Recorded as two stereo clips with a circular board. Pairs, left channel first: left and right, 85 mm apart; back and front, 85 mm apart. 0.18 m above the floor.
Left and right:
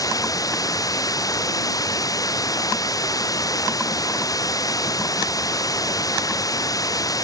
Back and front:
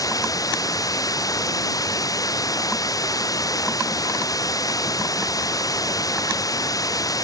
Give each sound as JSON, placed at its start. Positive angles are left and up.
{"t": 0.0, "sound": "running water", "azimuth_deg": 135}